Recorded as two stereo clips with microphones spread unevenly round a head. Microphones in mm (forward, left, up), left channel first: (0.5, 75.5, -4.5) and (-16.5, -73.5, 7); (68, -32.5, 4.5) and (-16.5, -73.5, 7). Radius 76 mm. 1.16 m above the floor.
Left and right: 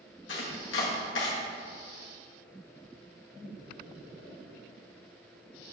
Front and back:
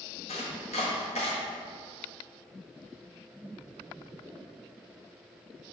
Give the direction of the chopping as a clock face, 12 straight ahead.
10 o'clock.